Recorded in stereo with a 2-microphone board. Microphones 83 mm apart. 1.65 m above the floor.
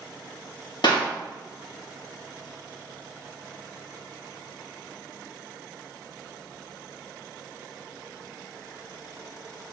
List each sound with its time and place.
0.8 s a clap: 75° left (ahead or behind), 2 m